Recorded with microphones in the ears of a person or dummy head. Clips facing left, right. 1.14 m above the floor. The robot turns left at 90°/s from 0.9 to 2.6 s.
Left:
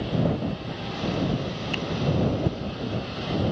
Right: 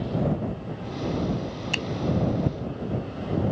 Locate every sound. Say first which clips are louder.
1.7 s a finger snap: left 2 dB; 55° right (ahead or behind); by 1.9 s 40° right (ahead or behind)